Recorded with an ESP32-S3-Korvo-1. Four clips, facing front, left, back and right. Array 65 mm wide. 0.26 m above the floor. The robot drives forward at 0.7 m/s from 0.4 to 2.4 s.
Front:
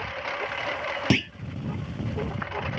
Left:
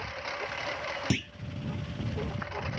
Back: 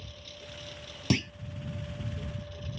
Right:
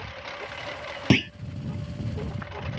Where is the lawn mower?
5° left.